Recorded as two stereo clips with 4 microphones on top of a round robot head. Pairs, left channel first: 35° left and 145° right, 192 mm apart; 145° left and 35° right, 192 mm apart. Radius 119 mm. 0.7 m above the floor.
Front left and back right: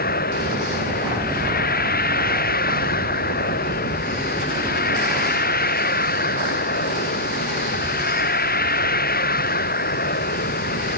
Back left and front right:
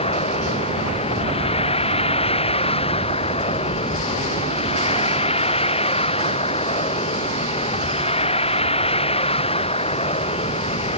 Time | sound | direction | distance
0.0 | a vehicle | 80° left | ?